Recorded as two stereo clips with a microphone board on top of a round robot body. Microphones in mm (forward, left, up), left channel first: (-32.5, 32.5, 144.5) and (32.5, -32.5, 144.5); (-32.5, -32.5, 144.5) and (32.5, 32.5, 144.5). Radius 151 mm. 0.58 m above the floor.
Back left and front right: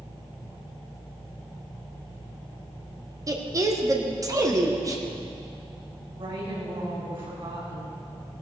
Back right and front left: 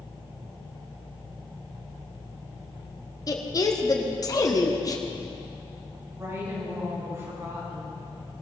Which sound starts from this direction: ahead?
A woman speaking, at 6.1 s.